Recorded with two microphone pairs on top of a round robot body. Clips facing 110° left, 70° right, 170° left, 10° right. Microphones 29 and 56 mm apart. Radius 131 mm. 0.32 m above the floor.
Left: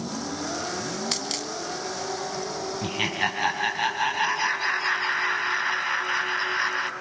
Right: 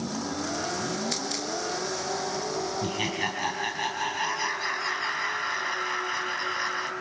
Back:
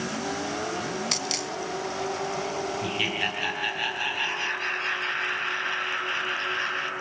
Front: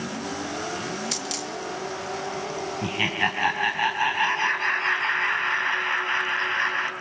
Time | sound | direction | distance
1.1 | a dropped coin | 135° left | 2.0 m
2.8 | laughter | 45° left | 3.5 m